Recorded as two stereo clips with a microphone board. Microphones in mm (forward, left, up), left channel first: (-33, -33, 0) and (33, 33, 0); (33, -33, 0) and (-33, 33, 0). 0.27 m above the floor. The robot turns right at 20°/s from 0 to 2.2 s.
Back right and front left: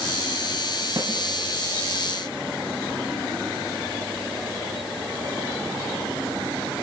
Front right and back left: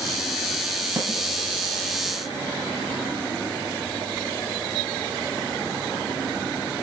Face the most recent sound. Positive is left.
turn(degrees=105)